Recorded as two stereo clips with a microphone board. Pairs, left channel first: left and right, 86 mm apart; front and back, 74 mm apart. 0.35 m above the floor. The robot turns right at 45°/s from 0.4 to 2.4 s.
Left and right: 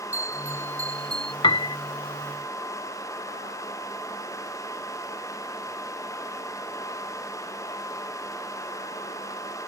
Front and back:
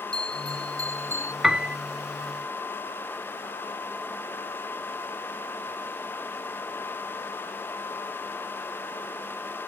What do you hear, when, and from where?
0.1 s a bell: 160° right; by 1.3 s 115° right
1.4 s a piano: 95° left; by 1.8 s 110° left